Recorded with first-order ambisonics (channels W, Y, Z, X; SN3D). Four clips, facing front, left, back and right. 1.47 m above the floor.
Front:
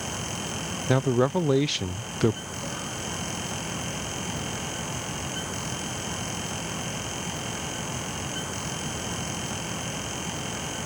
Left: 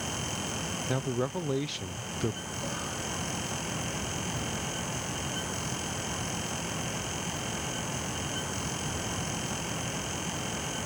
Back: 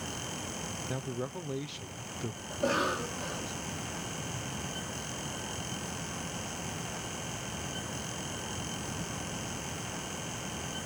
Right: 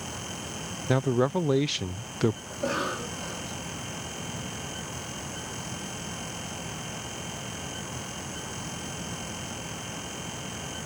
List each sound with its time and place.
0.9 s a man speaking: 25° right
2.5 s a cough: 135° right